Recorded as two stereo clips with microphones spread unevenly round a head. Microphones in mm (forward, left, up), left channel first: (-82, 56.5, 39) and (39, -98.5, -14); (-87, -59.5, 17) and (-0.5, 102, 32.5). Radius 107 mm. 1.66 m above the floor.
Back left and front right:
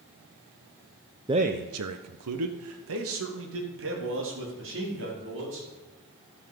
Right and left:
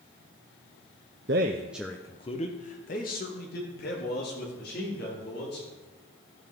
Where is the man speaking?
25° left, 0.7 m; by 5.7 s 75° right, 5 m.